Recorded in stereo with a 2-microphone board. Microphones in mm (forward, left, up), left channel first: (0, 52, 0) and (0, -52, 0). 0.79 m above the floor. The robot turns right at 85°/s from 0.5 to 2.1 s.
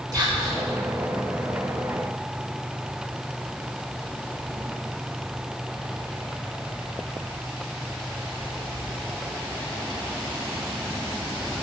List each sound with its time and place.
0.1 s whispering: 40° right (ahead or behind), 1.2 m; by 0.6 s 35° right (ahead or behind), 1.2 m